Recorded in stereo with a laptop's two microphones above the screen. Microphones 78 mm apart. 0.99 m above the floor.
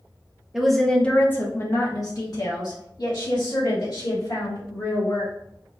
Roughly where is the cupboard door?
No cupboard door in this recording.